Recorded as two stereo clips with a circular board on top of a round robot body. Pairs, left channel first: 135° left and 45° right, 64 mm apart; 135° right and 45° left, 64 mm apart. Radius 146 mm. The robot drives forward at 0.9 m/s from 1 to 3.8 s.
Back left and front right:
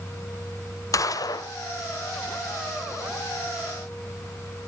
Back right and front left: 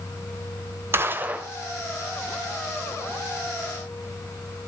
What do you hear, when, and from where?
0.9 s a gunshot: 100° left, 1.3 m; by 1.5 s 115° left, 1.5 m